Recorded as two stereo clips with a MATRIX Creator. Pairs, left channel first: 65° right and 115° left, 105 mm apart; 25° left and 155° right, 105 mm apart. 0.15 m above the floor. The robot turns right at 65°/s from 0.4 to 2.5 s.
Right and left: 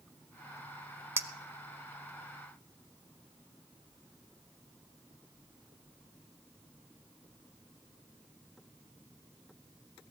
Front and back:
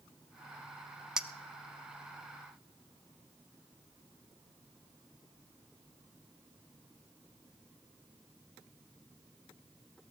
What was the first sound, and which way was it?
A clink, 130° left.